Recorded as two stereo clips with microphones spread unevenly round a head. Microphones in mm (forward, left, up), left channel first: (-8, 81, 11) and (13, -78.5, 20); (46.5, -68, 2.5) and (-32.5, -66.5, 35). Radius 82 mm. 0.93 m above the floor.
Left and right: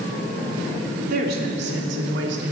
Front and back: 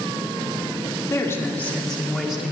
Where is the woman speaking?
50° right, 2.5 m; by 2.5 s 95° right, 3 m.